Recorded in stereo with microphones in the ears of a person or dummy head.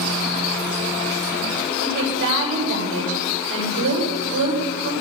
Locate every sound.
1.8 s a woman speaking: 75° right (ahead or behind), 7 m